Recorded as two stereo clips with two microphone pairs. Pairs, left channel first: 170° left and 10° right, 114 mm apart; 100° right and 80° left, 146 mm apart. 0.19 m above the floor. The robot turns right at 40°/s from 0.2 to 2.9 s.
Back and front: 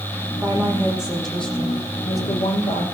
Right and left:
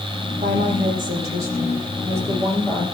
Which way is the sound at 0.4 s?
50° left.